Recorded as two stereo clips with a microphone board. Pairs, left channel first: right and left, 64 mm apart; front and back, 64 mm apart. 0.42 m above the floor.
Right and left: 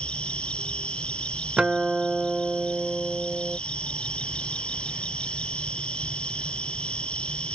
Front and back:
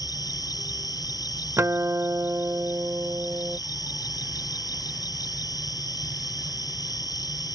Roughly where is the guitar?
Behind.